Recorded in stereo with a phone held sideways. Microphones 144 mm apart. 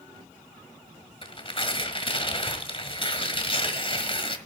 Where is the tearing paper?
40° left (ahead or behind), 1.6 m.